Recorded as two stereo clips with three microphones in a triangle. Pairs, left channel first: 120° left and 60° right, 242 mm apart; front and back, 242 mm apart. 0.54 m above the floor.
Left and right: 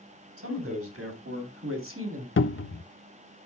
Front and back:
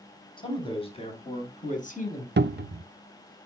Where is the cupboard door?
140° left, 0.5 m.